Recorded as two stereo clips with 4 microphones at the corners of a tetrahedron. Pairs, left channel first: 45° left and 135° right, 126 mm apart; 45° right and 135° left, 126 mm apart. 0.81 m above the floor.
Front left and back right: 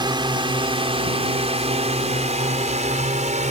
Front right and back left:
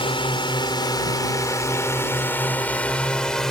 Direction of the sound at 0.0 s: 85° right.